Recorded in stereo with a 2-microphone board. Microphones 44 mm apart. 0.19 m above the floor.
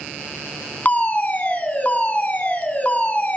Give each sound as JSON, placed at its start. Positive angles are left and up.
{"t": 0.8, "sound": "a fire alarm", "side_deg": 40, "distance_m": 2.5}